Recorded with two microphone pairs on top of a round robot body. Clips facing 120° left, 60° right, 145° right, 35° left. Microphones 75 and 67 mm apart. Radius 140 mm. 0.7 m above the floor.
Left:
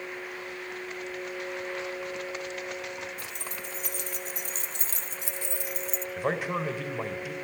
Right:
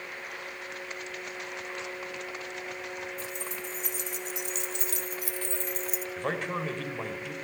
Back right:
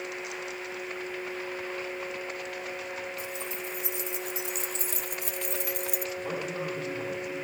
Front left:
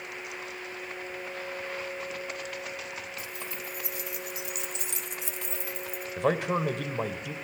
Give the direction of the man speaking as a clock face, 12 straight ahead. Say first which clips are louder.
Left 3 dB, front left 6 dB; 11 o'clock.